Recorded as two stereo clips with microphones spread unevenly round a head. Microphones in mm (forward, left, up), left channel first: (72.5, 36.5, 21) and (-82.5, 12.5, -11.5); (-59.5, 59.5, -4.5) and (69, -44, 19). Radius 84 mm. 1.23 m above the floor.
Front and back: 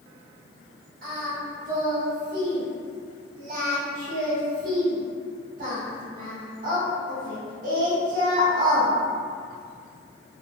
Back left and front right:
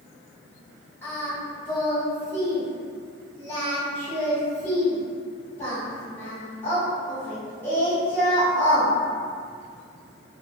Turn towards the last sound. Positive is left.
turn(degrees=-145)